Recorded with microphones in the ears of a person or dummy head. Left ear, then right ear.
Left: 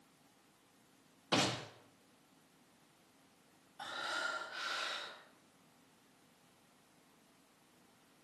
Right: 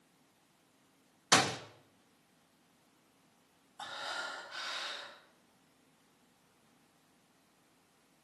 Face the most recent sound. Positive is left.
turn(degrees=-15)  # may be behind; listen again after turning